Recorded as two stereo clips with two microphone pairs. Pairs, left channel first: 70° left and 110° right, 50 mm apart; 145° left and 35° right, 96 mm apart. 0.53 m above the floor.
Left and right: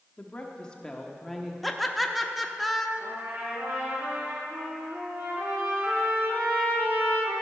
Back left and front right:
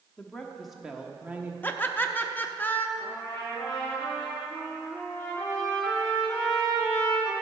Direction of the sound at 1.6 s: 155° left.